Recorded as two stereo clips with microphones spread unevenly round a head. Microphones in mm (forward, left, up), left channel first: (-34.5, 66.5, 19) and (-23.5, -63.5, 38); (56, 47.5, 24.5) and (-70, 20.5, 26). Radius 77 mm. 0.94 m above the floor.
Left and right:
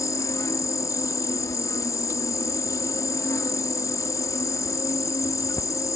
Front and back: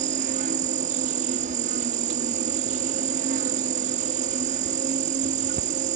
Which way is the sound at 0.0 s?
165° left.